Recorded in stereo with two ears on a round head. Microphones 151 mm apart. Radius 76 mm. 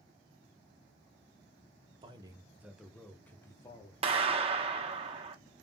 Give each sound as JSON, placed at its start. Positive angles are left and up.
{"t": 2.0, "sound": "a man speaking", "side_deg": -30, "distance_m": 0.9}
{"t": 4.0, "sound": "a clap", "side_deg": -35, "distance_m": 1.0}